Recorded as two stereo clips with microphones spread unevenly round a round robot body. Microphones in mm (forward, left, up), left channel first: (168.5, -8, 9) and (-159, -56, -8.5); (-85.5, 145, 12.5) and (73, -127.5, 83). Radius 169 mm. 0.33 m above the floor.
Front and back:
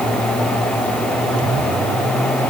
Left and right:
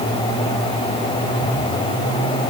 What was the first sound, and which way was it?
Only background noise.